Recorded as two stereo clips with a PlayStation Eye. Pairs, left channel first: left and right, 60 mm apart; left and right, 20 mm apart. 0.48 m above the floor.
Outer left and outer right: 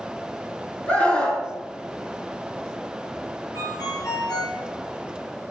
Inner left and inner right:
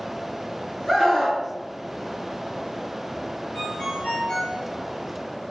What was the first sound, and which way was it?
A scream, 20° left (ahead or behind).